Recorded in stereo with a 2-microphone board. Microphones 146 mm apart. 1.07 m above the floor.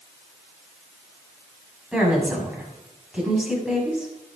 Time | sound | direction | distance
1.9 | a woman speaking | 5° right (ahead or behind) | 6.5 m